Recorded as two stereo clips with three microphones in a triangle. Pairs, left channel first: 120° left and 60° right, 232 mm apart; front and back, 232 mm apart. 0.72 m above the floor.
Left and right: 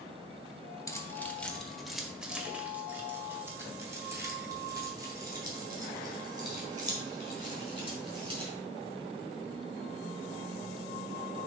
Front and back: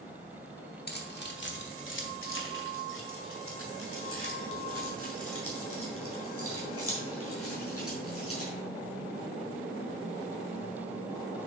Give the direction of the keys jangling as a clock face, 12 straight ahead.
11 o'clock.